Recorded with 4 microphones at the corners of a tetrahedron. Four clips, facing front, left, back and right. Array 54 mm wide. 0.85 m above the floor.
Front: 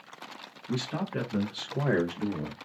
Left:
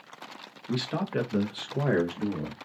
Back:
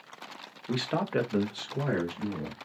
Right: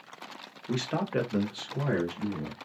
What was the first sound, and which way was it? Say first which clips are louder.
A man speaking: even, back 3 dB; 155° right.